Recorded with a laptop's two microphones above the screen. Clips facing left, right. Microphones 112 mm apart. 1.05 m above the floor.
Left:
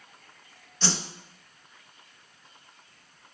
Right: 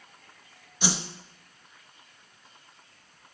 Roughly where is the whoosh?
Centre.